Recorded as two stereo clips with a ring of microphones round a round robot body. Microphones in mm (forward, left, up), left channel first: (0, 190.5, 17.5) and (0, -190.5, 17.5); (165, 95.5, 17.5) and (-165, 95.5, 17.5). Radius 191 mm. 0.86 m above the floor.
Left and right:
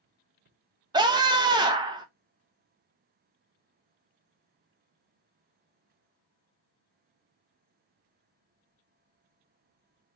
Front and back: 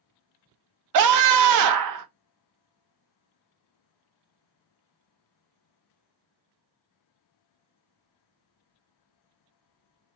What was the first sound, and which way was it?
A scream, 165° right.